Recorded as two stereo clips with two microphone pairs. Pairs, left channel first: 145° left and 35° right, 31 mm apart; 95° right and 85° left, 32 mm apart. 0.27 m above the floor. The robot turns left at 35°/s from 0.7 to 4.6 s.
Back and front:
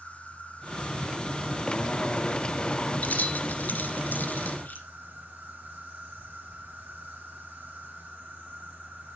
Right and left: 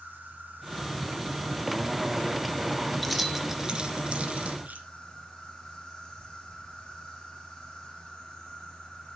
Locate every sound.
0.0 s an insect: 115° left, 7 m; by 9.2 s 25° right, 7 m
3.0 s keys jangling: 175° left, 2.5 m; by 4.8 s 120° left, 2.5 m